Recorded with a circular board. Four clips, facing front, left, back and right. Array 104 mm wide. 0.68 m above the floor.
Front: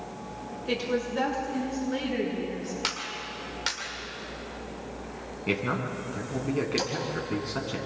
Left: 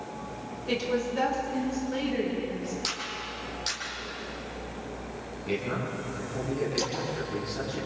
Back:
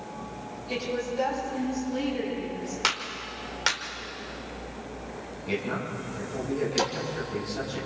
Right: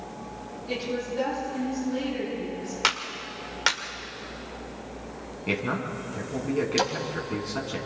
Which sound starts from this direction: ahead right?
A man speaking, at 5.5 s.